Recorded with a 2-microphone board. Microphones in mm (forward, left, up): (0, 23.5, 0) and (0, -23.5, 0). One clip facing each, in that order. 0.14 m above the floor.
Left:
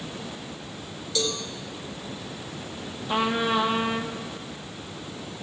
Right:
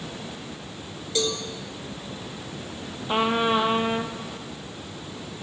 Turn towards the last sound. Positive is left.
turn(degrees=-25)  # may be behind; listen again after turning